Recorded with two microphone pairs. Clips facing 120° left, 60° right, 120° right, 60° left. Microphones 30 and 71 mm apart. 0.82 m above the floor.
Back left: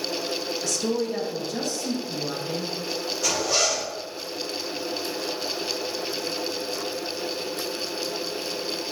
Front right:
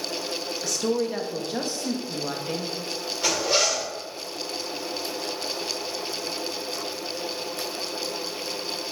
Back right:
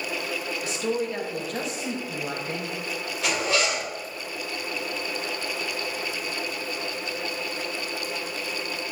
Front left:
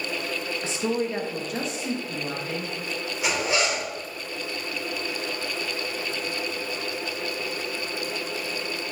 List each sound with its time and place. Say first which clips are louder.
0.6 s a woman speaking: front right 2 dB, front left 1 dB; 15° left, 1.0 m; by 2.7 s 65° right, 1.2 m
3.2 s a zipper: front right 1 dB, even; 15° right, 3 m